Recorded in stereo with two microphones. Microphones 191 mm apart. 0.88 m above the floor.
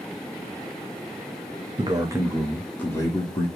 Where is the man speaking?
25° right (ahead or behind), 1.1 m; by 3.5 s 30° left (ahead or behind), 1.2 m.